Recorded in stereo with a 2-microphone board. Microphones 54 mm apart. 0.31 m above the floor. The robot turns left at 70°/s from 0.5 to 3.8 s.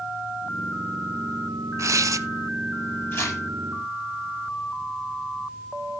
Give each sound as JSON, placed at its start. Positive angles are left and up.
{"t": 1.8, "sound": "tearing paper", "azimuth_deg": -65, "distance_m": 0.7}
{"t": 3.1, "sound": "tearing paper", "side_deg": 45, "distance_m": 10.0}